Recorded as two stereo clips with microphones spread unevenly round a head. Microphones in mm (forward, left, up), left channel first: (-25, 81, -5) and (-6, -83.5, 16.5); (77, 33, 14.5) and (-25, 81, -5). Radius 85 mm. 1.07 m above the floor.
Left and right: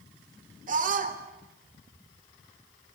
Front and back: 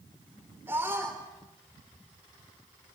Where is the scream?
125° right, 3.5 m.